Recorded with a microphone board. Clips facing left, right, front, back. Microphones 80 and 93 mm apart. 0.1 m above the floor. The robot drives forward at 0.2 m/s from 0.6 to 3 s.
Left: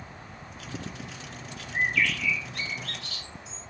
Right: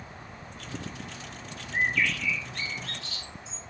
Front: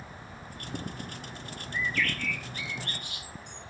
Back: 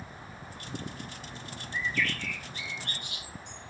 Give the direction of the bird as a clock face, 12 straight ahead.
4 o'clock.